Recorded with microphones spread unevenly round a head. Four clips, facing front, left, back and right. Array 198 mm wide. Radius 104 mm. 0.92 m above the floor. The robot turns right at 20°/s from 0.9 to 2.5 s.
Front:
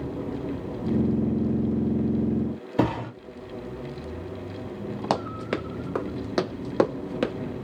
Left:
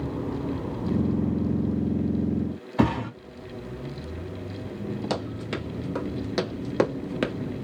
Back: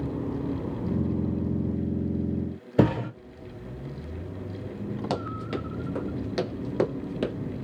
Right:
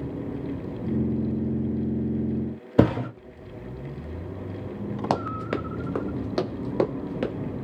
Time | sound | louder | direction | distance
2.8 | a thud | right 3 dB, back 2 dB | 130° right | 1.8 m
5.1 | running footsteps | right 4 dB, front 6 dB | 45° right | 1.2 m